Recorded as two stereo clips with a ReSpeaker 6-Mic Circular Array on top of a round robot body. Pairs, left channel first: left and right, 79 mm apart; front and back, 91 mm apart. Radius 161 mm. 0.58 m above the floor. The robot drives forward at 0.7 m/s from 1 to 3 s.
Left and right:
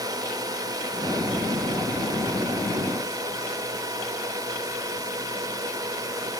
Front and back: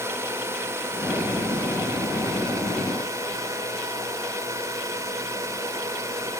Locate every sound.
0.0 s a drone: 120° right; by 6.4 s 125° right